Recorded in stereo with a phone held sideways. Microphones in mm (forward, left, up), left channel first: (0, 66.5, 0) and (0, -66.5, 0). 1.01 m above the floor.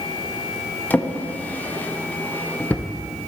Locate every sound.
0.9 s a drawer: 15° left (ahead or behind), 0.5 m